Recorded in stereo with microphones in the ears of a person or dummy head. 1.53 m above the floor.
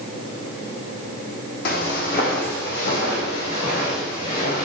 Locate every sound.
1.6 s footsteps: 55° left (ahead or behind), 4 m